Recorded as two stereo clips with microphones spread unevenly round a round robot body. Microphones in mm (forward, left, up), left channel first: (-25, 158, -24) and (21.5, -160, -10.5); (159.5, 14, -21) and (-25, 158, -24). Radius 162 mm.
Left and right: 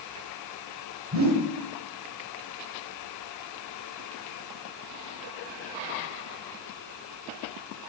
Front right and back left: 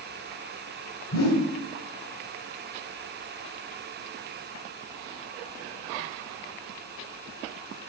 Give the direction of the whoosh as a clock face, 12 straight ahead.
1 o'clock.